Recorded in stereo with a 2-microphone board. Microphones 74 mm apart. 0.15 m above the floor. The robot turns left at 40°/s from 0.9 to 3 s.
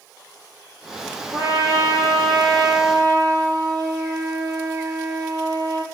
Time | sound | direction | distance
1.3 | a trumpet | 50° right | 2 m